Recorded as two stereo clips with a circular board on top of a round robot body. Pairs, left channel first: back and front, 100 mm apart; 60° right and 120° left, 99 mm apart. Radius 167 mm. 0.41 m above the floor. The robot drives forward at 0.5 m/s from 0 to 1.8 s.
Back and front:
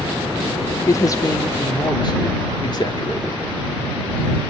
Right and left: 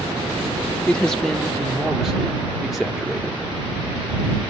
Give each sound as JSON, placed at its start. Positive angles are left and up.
{"t": 0.9, "sound": "a man speaking", "azimuth_deg": -135, "distance_m": 1.2}